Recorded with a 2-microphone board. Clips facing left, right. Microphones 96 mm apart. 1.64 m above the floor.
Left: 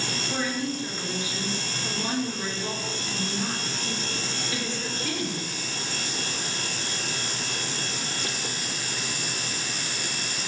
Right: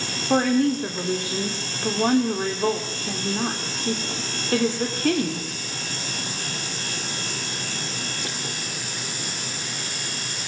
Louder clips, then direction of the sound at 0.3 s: Right 12 dB; 60° right (ahead or behind).